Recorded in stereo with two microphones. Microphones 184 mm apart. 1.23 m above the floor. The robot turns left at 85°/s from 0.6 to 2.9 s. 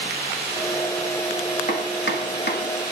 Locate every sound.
1.7 s chopping: 50° left (ahead or behind), 1.1 m; by 2.6 s 45° left (ahead or behind), 1.1 m